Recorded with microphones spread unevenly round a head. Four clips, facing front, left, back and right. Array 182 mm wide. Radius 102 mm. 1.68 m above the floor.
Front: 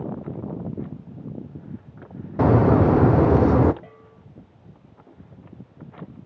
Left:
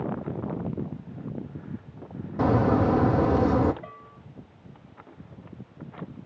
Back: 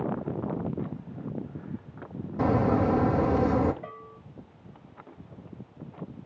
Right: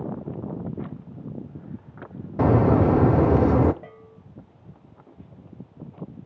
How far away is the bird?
About 0.6 m.